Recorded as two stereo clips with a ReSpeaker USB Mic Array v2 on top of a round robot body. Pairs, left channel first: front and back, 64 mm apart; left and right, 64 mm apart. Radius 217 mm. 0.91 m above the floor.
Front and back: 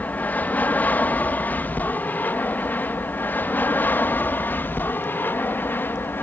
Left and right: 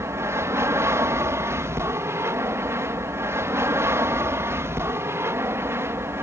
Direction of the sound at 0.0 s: 60° right.